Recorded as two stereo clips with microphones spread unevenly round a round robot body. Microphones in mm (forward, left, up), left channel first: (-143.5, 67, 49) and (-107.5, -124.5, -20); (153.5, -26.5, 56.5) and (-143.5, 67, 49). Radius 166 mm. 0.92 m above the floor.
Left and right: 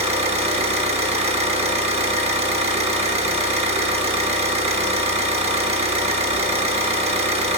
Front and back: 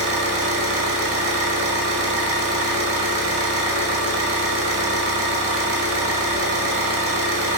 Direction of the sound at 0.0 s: 150° right.